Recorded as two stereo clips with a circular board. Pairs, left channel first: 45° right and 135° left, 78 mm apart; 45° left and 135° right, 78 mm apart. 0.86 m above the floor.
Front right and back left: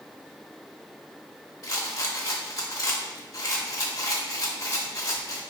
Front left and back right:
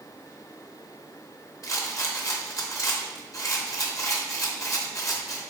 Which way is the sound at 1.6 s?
5° right.